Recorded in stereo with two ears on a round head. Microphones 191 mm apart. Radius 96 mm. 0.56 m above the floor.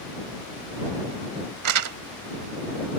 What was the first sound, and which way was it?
Crumpling, 80° right.